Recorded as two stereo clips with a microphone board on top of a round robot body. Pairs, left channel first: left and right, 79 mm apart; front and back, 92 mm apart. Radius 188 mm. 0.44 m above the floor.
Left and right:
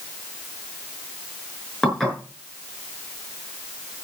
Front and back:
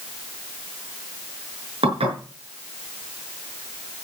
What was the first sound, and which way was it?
Dishes clattering, 175° left.